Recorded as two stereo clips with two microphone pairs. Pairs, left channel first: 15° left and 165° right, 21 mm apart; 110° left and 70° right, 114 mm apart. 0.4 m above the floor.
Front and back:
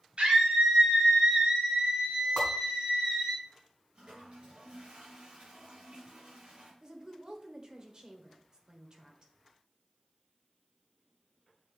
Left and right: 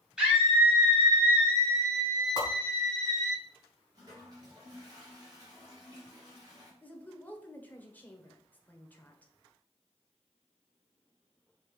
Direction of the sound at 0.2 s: 150° right.